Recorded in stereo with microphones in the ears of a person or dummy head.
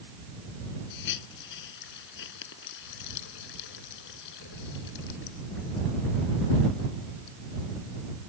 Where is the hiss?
70° left (ahead or behind).